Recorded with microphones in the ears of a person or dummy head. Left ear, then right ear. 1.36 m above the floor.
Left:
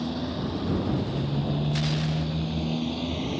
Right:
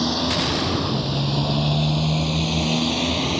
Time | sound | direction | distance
0.0 | a motorcycle | 50° right (ahead or behind) | ?